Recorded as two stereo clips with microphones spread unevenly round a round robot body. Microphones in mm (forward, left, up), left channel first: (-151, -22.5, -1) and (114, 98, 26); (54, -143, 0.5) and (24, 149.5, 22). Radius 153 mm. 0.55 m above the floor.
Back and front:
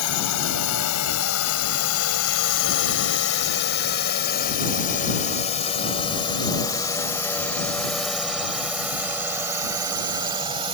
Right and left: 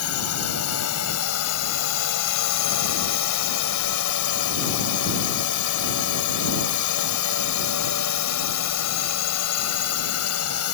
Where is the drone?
125° right; by 10.8 s 50° right.